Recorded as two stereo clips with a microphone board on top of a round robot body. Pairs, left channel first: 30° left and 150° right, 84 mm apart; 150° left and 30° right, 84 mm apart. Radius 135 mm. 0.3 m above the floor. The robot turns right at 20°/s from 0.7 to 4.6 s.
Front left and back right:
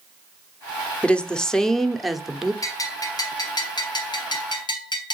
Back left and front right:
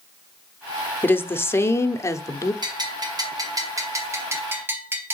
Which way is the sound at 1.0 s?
100° left.